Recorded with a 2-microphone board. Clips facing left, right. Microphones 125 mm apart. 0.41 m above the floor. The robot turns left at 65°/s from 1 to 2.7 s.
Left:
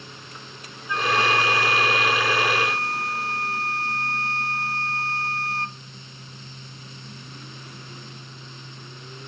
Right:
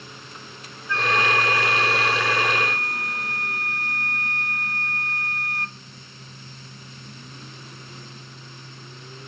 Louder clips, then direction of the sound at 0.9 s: Left 1 dB; 155° left.